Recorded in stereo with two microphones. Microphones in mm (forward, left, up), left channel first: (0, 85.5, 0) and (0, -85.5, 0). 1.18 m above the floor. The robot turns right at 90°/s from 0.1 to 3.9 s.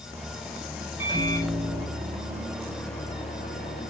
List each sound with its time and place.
1.0 s a microwave: 165° right, 5 m; by 3.9 s 100° left, 5 m